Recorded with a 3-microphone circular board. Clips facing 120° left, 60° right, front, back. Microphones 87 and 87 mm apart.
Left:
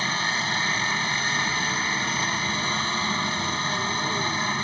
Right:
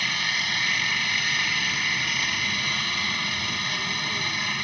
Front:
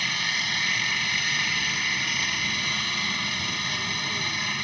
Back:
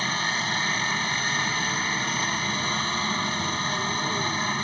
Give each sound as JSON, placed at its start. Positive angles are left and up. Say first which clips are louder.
{"t": 0.0, "sound": "a helicopter", "louder": "left 3 dB, back 3 dB", "azimuth_deg": 155}